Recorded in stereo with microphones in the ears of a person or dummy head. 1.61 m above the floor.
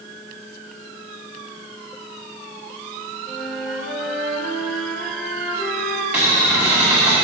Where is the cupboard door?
5° right (ahead or behind), 1.6 m.